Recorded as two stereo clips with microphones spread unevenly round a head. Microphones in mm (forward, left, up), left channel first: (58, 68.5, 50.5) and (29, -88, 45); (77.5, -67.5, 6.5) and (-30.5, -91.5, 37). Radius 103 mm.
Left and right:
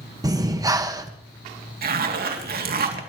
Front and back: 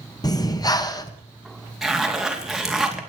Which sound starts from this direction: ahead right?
Breathing, at 0.2 s.